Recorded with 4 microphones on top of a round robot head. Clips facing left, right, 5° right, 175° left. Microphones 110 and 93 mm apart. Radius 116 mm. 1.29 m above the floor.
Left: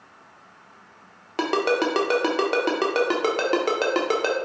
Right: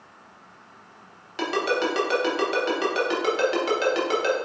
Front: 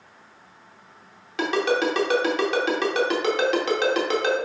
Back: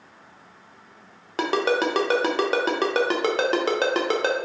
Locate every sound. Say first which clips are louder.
1.4 s a ringtone: left 3 dB, even; 130° left, 0.7 m